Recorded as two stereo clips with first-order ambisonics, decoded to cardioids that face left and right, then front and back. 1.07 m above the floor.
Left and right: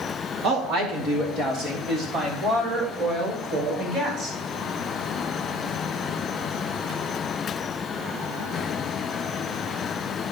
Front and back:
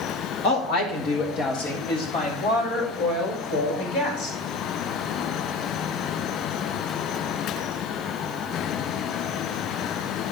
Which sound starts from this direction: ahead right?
A woman speaking, at 0.4 s.